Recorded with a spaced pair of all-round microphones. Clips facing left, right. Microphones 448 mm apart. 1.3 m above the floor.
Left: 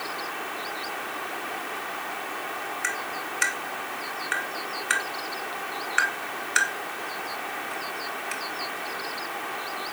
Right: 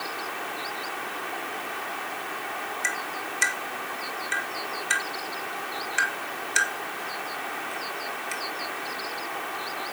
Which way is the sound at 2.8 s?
60° left (ahead or behind).